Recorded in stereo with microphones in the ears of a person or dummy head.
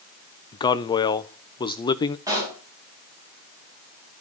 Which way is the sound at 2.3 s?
15° right (ahead or behind).